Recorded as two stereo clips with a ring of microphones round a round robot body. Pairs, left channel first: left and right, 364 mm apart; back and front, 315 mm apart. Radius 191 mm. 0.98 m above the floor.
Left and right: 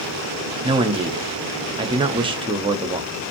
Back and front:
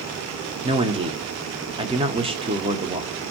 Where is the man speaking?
40° right, 0.6 m.